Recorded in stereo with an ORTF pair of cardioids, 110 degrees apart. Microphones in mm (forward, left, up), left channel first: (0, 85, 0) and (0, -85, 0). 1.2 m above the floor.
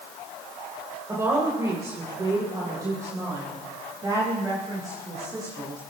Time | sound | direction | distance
1.1 | a woman speaking | 20° right | 3.5 m